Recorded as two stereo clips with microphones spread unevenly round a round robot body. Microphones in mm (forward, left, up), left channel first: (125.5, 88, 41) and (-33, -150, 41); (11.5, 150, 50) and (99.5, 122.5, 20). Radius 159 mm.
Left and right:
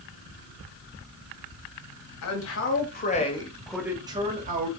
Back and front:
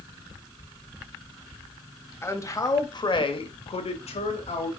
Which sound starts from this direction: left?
A man speaking, at 2.2 s.